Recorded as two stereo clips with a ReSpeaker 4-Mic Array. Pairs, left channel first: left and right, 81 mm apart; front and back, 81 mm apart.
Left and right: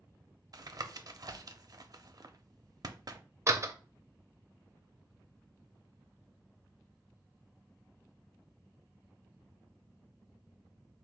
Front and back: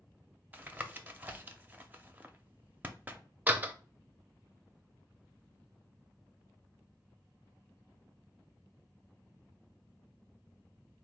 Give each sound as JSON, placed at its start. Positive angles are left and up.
{"t": 0.5, "sound": "tapping", "azimuth_deg": -115, "distance_m": 0.6}
{"t": 3.5, "sound": "a door slam", "azimuth_deg": -120, "distance_m": 0.6}